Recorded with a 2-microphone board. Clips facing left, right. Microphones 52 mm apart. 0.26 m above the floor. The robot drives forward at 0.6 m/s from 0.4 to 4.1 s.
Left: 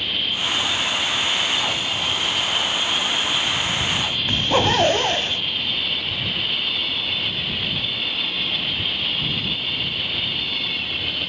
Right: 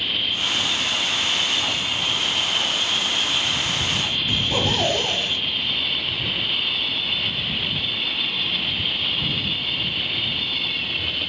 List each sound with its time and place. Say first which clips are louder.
4.3 s a zipper: left 6 dB; 45° left (ahead or behind), 1.1 m